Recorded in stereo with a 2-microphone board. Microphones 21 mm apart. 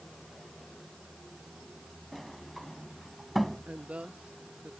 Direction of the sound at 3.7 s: 65° right (ahead or behind).